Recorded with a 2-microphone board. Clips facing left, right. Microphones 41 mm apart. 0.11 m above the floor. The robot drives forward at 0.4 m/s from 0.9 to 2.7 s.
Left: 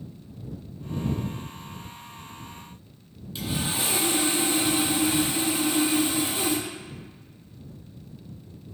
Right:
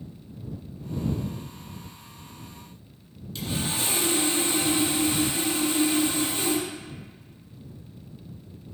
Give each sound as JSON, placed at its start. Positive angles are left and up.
{"t": 3.4, "sound": "sawing", "side_deg": 15, "distance_m": 0.8}